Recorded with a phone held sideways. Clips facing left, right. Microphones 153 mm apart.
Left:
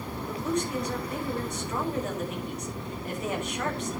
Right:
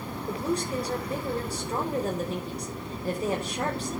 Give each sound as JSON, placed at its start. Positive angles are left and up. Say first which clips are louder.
{"t": 0.3, "sound": "a woman speaking", "louder": "right 1 dB", "side_deg": -35, "distance_m": 4.5}